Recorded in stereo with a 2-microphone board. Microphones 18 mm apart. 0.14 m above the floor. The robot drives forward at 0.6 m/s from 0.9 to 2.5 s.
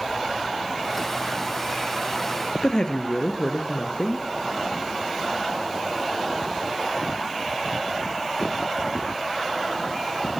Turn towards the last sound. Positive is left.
turn(degrees=45)  # may be behind; listen again after turning